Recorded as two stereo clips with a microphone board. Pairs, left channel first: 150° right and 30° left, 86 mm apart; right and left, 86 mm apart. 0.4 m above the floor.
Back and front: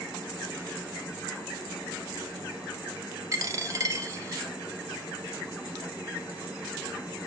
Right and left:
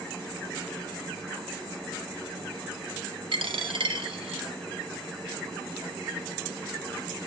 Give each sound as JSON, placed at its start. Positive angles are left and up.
{"t": 3.3, "sound": "a dropped coin", "azimuth_deg": 80, "distance_m": 0.6}